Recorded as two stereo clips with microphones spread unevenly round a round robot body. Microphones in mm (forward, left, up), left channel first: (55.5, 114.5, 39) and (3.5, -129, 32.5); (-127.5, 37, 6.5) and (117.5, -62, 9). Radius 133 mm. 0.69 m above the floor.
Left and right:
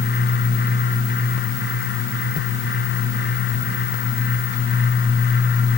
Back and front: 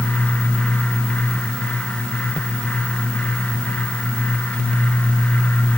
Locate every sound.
Only background noise.